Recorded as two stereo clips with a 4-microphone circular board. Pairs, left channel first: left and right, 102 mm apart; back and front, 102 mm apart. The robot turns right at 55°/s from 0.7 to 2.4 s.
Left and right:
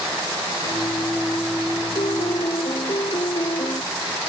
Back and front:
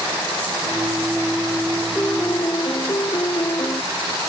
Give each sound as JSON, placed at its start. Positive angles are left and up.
{"t": 1.9, "sound": "a piano", "azimuth_deg": 100}